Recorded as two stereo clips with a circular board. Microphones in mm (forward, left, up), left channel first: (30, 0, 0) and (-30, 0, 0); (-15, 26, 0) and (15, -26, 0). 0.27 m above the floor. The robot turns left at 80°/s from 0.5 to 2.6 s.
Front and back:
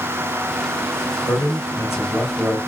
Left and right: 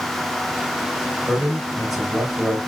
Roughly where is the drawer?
No drawer in this recording.